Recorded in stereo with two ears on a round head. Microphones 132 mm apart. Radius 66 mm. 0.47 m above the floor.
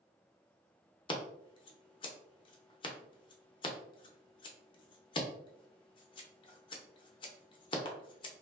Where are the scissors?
35° left (ahead or behind), 0.6 m.